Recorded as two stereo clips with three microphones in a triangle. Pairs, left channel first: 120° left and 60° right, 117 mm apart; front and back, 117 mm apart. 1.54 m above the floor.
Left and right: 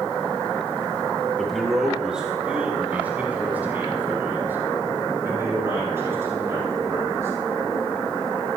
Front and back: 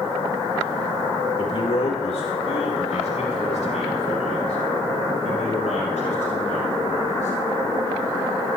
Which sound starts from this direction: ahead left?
A man speaking, at 1.4 s.